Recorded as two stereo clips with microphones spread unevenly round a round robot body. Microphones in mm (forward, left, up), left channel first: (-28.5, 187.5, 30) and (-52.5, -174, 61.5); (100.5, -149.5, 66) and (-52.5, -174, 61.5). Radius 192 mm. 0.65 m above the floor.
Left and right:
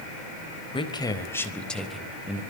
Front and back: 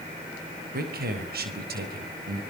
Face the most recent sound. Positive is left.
turn(degrees=180)